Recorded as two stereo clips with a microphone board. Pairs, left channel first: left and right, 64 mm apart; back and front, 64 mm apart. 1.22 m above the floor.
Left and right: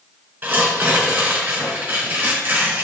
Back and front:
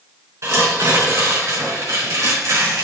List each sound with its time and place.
0.4 s tearing paper: 35° right, 3.5 m